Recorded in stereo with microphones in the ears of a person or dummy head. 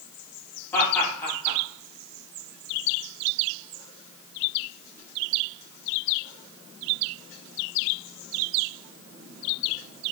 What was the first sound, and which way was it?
Laughter, 10° left (ahead or behind).